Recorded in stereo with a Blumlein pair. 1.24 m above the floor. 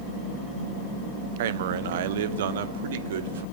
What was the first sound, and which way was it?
A man speaking, 55° right.